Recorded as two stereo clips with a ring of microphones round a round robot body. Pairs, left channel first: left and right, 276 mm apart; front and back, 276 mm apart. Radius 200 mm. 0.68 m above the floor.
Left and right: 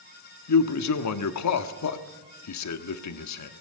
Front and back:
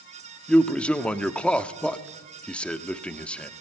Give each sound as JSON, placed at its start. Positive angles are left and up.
{"t": 0.5, "sound": "a man speaking", "azimuth_deg": 85, "distance_m": 1.2}